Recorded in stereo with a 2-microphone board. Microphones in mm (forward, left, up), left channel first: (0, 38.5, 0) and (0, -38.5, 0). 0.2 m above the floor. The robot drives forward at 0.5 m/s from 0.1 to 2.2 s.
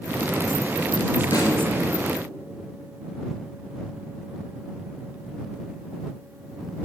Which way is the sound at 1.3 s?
55° left (ahead or behind).